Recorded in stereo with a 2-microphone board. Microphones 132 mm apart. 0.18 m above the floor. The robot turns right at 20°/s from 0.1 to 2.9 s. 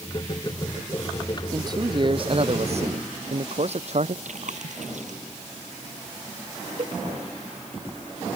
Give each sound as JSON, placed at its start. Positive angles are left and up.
{"t": 1.5, "sound": "a man speaking", "side_deg": -30}
{"t": 4.2, "sound": "chewing", "side_deg": -65}
{"t": 6.8, "sound": "a cowbell", "side_deg": -50}